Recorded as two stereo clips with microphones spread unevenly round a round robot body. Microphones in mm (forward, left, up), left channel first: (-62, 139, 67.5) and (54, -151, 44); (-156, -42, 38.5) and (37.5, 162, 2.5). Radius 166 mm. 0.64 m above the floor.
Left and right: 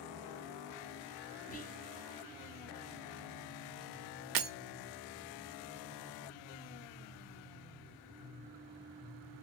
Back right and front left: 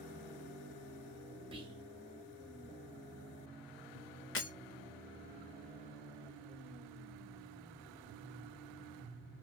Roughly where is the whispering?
Left.